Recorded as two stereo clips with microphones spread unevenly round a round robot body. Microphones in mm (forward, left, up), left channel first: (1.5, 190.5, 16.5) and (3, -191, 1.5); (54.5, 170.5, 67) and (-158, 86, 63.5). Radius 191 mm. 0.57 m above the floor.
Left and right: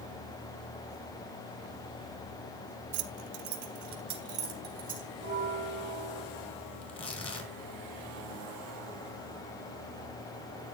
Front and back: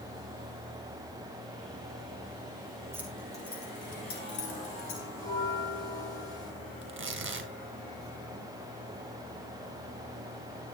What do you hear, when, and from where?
2.9 s keys jangling: 80° right, 1.0 m; by 5.1 s 20° right, 2.5 m
5.2 s a bell: 95° left, 8.5 m
6.8 s tearing paper: 165° left, 3 m